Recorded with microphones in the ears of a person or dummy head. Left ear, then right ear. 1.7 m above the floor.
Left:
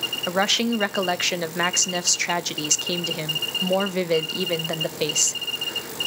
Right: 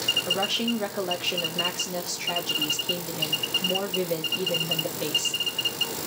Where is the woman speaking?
65° left (ahead or behind), 0.5 m.